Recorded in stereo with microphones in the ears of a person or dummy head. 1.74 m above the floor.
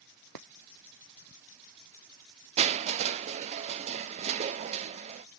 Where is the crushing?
35° right (ahead or behind), 0.5 m.